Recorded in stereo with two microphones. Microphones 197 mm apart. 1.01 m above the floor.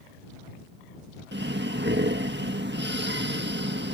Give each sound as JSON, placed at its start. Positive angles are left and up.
{"t": 1.3, "sound": "breathing", "side_deg": -65}